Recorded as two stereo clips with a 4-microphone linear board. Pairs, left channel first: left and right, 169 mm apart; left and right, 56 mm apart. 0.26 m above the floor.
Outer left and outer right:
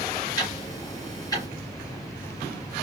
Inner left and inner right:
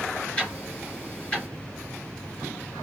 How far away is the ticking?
About 3.5 m.